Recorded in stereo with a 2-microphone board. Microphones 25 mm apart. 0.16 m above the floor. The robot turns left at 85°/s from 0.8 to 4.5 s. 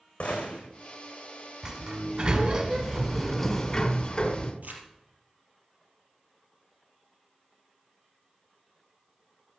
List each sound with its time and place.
0.2 s a gunshot: 50° left (ahead or behind), 3.5 m
1.6 s a sliding door: 20° right (ahead or behind), 1.7 m; by 4.5 s 20° left (ahead or behind), 1.7 m
4.6 s crumpling: 70° right (ahead or behind), 3 m